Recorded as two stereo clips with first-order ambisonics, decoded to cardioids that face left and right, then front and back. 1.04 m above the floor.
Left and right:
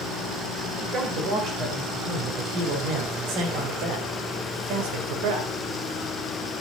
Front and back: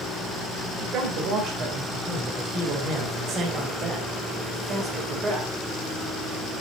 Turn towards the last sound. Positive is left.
turn(degrees=-105)